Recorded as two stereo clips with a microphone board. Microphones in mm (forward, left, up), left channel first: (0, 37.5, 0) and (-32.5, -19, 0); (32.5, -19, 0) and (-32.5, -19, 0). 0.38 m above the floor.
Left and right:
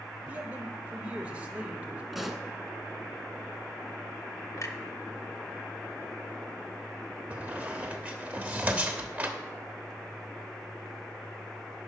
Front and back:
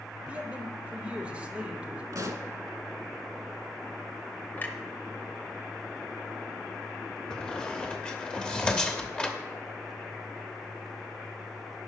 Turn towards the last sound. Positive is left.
turn(degrees=-65)